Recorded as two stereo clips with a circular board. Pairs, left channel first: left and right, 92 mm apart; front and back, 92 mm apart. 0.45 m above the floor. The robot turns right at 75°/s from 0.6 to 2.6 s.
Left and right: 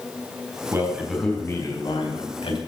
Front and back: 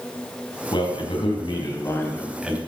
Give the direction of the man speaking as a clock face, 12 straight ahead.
1 o'clock.